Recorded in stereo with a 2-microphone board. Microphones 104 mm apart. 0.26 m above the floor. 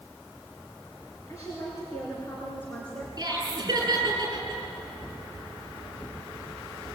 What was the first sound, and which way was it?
A woman speaking, 30° left (ahead or behind).